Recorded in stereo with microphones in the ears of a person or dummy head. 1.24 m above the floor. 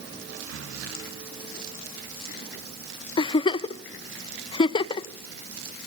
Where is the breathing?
75° right (ahead or behind), 1.5 m.